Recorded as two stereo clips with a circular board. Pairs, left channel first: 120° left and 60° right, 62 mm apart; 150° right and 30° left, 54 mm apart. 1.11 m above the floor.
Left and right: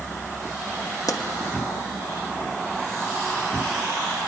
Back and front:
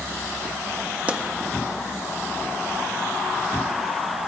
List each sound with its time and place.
1.1 s a pop: 95° left, 1.2 m